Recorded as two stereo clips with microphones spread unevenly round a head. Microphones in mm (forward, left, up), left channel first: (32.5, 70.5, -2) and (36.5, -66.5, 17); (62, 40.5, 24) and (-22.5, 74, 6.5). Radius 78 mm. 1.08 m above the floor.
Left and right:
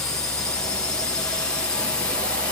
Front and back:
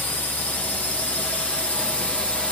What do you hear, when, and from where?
0.0 s a drone: 45° left; by 2.5 s 60° left